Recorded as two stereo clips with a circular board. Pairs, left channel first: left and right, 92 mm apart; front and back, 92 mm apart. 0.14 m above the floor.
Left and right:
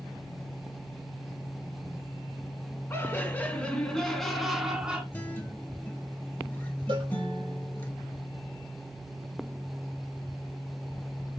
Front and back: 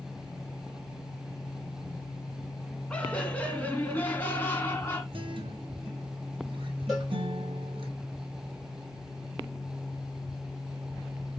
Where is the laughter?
65° left, 1.7 m; by 5.0 s 30° right, 1.6 m.